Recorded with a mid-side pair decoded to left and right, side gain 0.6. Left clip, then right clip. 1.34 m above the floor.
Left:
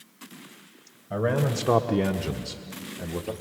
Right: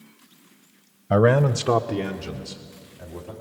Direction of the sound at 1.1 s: 60° right.